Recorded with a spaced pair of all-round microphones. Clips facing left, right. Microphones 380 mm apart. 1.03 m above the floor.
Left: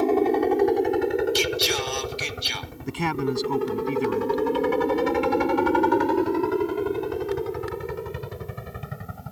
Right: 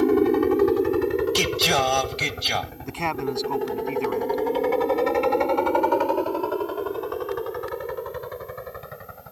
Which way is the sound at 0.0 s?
20° right (ahead or behind).